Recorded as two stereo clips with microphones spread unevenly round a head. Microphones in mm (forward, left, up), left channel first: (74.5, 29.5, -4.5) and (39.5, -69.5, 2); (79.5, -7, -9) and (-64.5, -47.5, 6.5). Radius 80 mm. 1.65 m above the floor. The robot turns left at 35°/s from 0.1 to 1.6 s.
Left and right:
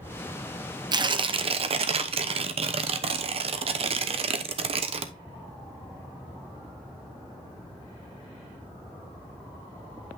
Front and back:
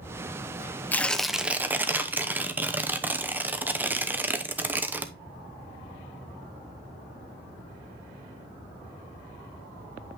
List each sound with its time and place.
0.9 s tearing paper: 65° right, 0.8 m; by 5.1 s 90° right, 0.8 m